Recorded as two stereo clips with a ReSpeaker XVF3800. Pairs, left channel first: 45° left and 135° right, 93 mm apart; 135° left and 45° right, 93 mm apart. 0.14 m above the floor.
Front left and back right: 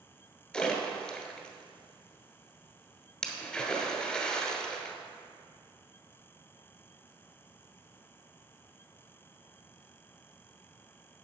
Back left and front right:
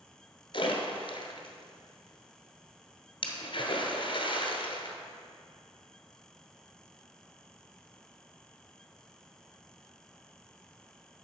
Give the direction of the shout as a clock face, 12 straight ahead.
I don't hear a shout.